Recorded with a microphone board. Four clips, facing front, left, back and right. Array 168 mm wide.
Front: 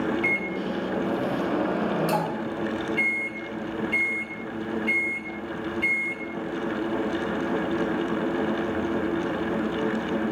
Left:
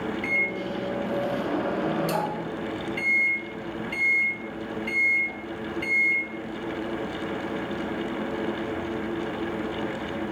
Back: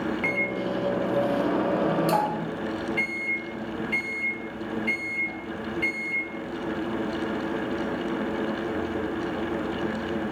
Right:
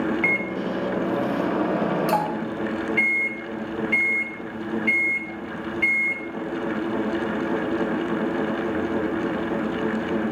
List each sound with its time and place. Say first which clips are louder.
0.2 s a microwave: right 4 dB, even; 115° right, 0.7 m